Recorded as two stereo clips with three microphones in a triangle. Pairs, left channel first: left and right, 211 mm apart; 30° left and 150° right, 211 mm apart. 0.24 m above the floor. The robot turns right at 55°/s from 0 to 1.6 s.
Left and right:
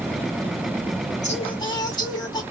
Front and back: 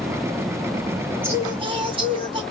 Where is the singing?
135° left, 2 m; by 2.4 s 155° left, 2 m.